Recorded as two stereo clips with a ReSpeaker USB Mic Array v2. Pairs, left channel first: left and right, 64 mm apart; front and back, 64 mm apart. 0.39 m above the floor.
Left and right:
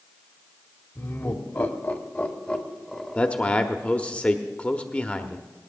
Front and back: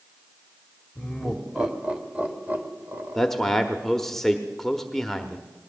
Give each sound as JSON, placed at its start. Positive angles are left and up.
{"t": 0.9, "sound": "laughter", "azimuth_deg": 90, "distance_m": 1.6}
{"t": 3.1, "sound": "a man speaking", "azimuth_deg": 75, "distance_m": 0.8}